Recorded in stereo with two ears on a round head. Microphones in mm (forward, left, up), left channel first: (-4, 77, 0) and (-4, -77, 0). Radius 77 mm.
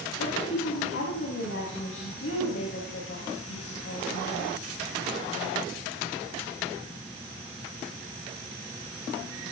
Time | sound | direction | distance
0.2 | a woman speaking | 85° left | 5 m